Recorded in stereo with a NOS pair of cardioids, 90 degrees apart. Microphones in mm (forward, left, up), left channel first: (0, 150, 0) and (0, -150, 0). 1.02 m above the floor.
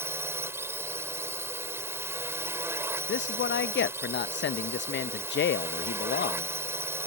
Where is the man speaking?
40° left.